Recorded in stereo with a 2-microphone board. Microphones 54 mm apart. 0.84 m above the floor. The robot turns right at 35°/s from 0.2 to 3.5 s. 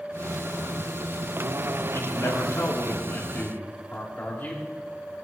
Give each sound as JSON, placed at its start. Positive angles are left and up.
{"t": 1.9, "sound": "a man speaking", "azimuth_deg": 85, "distance_m": 2.5}